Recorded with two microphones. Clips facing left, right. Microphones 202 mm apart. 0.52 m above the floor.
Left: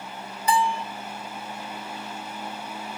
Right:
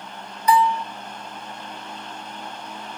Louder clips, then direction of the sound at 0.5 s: Right 5 dB; 30° left (ahead or behind).